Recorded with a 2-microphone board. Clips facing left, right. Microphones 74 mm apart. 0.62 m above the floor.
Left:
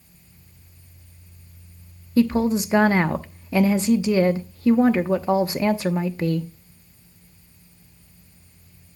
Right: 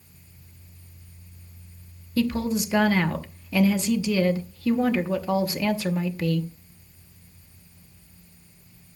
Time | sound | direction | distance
2.2 | a woman speaking | 30° left (ahead or behind) | 0.8 m